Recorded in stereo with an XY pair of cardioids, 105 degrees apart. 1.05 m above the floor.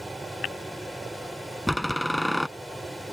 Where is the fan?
10° right.